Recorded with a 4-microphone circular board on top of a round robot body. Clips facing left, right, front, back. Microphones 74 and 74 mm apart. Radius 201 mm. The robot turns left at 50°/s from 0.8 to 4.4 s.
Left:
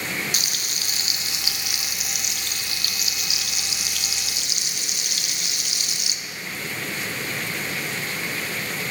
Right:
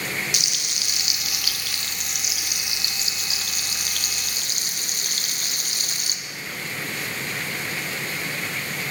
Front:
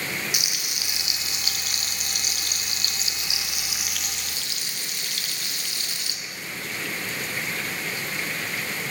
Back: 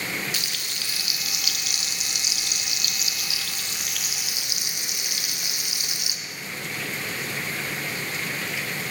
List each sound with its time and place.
0.3 s frying: 70° left, 0.6 m; by 6.2 s 110° right, 0.6 m